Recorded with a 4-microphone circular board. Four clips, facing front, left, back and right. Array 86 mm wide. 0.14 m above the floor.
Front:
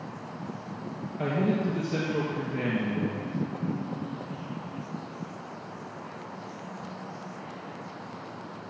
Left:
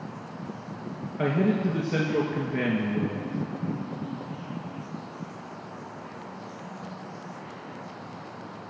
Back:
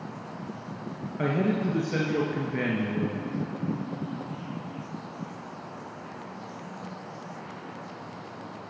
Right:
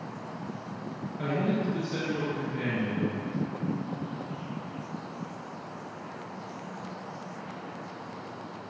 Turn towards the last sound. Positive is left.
turn(degrees=130)